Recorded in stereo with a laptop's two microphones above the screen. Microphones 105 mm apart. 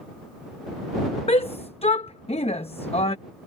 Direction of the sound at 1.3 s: 75° left (ahead or behind).